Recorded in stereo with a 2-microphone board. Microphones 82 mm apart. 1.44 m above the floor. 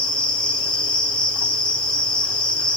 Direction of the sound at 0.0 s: 10° left (ahead or behind).